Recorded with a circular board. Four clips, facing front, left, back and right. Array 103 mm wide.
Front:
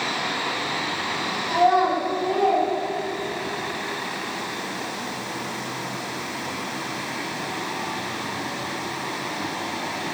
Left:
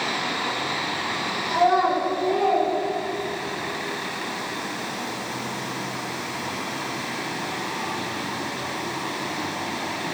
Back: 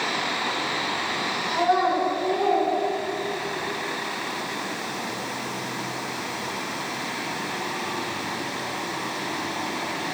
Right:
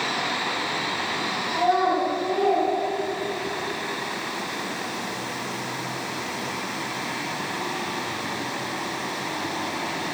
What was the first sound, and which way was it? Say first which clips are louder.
A child speaking: left 2 dB, front 3 dB; 30° left.